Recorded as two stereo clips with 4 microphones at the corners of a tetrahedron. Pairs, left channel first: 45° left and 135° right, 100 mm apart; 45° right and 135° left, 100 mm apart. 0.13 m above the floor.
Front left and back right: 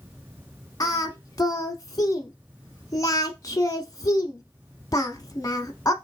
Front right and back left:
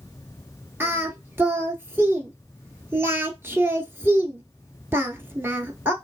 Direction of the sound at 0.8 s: 80° left.